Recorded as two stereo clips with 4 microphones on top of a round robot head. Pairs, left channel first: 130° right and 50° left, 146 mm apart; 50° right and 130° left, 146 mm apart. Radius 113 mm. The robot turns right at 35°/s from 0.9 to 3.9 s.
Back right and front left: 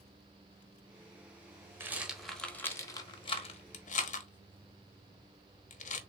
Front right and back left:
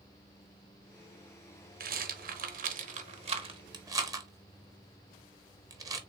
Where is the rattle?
125° left, 1.0 m; by 6.0 s 165° right, 1.0 m.